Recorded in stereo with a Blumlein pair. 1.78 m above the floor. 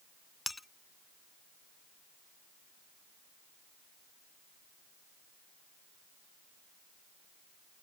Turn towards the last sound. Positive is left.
turn(degrees=5)